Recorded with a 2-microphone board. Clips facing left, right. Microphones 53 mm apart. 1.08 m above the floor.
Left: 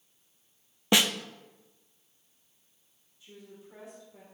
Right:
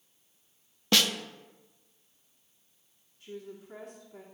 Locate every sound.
0.9 s a snare drum: 15° left (ahead or behind), 0.6 m
3.2 s a woman speaking: 55° right (ahead or behind), 2.5 m